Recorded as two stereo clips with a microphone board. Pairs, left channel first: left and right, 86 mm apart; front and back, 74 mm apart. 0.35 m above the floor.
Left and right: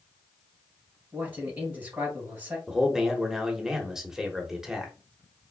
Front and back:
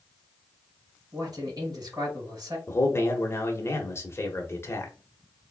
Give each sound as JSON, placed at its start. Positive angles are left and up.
{"t": 1.1, "sound": "a man speaking", "azimuth_deg": -155, "distance_m": 2.5}
{"t": 2.7, "sound": "a man speaking", "azimuth_deg": -10, "distance_m": 0.9}